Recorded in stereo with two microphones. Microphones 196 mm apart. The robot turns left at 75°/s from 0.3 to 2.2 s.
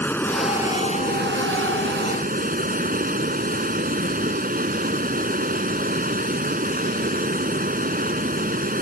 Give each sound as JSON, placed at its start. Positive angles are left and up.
{"t": 0.0, "sound": "running water", "azimuth_deg": 10}